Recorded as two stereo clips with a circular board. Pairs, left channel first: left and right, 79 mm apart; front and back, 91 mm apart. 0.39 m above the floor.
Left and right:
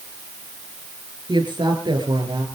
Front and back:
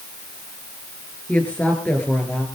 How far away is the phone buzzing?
No phone buzzing in this recording.